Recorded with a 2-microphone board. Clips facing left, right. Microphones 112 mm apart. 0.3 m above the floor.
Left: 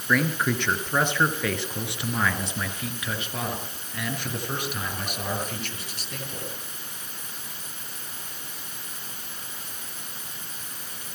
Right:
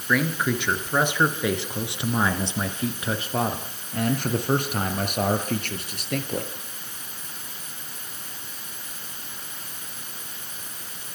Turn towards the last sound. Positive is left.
turn(degrees=-60)  # may be behind; listen again after turning